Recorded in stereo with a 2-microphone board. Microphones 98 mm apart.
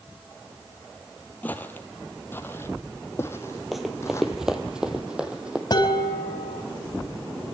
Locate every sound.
1.4 s footsteps: 20° left (ahead or behind), 2 m; by 4.4 s 30° left (ahead or behind), 3.5 m
3.7 s running footsteps: centre (ahead or behind), 2 m; by 5.6 s 10° right (ahead or behind), 3 m
5.7 s dishes clattering: 45° left (ahead or behind), 4.5 m